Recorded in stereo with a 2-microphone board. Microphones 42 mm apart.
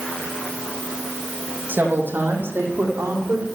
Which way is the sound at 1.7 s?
50° right (ahead or behind).